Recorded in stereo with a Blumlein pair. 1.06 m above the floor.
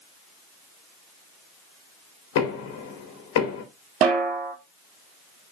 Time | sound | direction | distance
2.4 | knocking | 50° left | 2.5 m
4.0 | a snare drum | 30° right | 2.5 m